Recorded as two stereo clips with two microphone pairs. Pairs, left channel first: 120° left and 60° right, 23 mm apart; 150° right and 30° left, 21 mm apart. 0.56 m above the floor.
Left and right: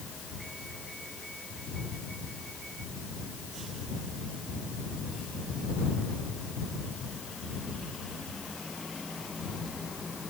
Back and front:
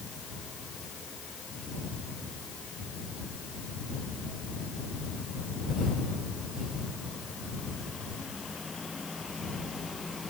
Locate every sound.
Only background noise.